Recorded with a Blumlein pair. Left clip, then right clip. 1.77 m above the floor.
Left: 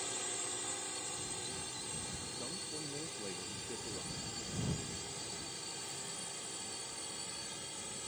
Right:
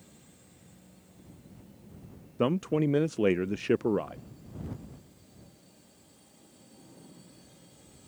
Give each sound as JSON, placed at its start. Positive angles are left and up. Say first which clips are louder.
{"t": 0.0, "sound": "a drone", "louder": "left 18 dB", "azimuth_deg": 40}
{"t": 2.4, "sound": "a man speaking", "louder": "right 20 dB", "azimuth_deg": -40}